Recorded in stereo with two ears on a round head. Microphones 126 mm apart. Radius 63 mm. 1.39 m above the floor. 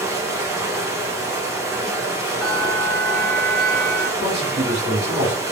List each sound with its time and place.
0.0 s running water: 20° right (ahead or behind), 0.9 m
2.4 s a bell: 25° left (ahead or behind), 1.6 m
4.2 s a man speaking: 50° right (ahead or behind), 1.3 m